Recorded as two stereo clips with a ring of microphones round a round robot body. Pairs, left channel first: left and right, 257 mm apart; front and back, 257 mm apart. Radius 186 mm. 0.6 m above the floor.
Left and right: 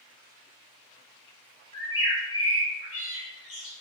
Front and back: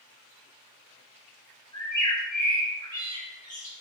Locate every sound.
1.7 s a bird: 75° left, 1.3 m